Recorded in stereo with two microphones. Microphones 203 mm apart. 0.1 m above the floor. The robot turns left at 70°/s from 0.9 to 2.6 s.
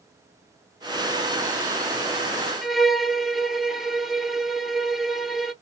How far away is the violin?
About 0.6 m.